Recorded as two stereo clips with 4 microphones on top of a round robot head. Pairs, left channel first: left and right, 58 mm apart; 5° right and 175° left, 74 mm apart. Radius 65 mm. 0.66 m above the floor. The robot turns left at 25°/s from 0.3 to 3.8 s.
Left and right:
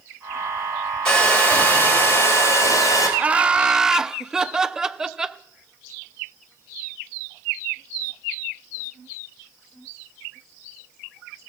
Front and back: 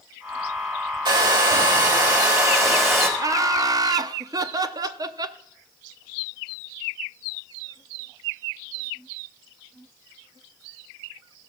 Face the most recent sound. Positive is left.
turn(degrees=-165)